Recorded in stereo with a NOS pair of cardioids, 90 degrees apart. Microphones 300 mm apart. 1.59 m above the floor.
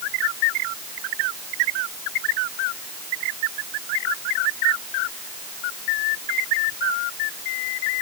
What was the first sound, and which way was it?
Only background noise.